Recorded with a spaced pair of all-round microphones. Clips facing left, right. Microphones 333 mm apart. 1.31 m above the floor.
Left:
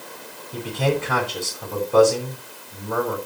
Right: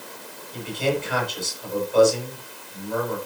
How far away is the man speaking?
About 5.5 m.